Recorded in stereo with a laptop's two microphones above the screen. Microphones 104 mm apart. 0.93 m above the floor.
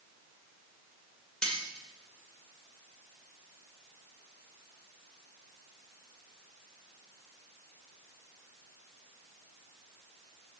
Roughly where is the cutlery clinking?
Centre.